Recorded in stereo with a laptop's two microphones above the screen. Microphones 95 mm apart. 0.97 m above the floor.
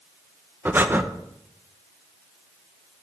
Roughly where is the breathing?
Centre.